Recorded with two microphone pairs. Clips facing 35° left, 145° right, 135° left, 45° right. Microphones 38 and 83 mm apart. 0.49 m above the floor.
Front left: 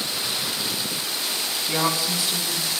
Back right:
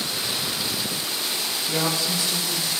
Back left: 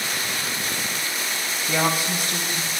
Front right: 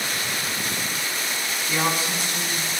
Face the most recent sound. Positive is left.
turn(degrees=110)